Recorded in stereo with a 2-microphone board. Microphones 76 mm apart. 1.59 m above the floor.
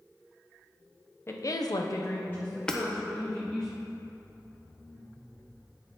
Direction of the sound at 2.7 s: 10° left (ahead or behind).